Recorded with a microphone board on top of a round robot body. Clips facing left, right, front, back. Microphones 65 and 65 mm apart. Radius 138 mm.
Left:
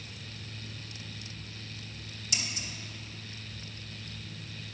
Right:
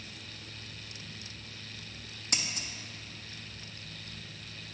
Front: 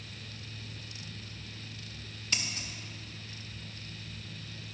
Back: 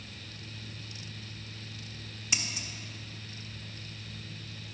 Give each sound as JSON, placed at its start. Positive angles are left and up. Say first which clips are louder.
{"t": 2.3, "sound": "scissors", "louder": "right 1 dB, even", "azimuth_deg": -105, "distance_m": 1.0}